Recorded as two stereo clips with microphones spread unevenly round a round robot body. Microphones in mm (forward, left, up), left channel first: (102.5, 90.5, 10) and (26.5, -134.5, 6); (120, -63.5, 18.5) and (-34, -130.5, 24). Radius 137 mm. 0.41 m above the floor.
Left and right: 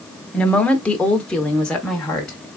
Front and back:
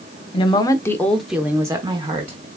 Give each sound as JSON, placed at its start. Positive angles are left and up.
{"t": 0.3, "sound": "a woman speaking", "azimuth_deg": -15, "distance_m": 0.9}